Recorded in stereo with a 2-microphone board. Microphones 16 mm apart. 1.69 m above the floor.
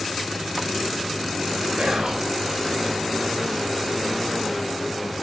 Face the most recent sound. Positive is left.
turn(degrees=-70)  # may be behind; listen again after turning